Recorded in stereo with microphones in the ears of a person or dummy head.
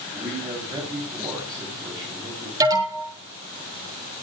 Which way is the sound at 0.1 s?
20° right (ahead or behind).